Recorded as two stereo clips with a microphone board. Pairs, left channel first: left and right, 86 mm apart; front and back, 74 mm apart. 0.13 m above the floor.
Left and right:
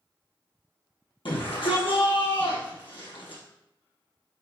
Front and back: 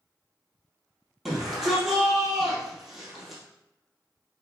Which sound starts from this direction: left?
A shout, at 1.2 s.